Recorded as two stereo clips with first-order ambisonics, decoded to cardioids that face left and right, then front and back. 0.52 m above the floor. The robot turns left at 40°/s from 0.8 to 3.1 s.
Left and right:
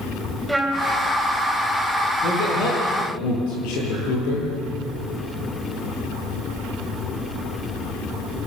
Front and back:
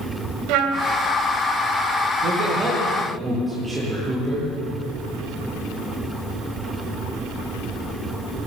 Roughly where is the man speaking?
Behind left.